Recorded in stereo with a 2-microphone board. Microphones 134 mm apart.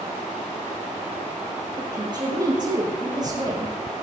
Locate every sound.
1.8 s a woman speaking: 35° right (ahead or behind), 7.5 m; by 3.7 s 30° right (ahead or behind), 6 m